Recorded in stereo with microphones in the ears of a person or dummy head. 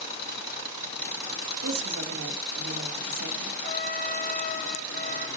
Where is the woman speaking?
80° right, 3 m.